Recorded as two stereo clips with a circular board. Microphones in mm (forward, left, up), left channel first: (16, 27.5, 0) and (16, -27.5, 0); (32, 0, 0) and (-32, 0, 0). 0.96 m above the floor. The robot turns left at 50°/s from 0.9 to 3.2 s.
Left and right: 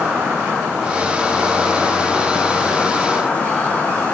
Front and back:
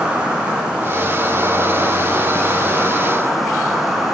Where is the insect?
140° right, 0.9 m; by 4.2 s 105° left, 0.9 m.